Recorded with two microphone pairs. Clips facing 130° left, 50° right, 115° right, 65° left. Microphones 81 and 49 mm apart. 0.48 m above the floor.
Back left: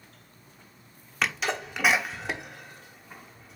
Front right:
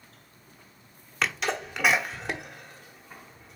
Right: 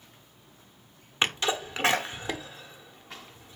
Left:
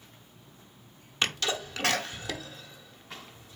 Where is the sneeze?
140° right, 1.0 m.